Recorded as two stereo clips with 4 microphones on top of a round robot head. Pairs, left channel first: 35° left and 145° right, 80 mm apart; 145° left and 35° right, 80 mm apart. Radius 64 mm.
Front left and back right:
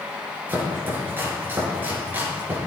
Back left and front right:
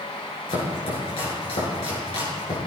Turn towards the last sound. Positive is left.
turn(degrees=150)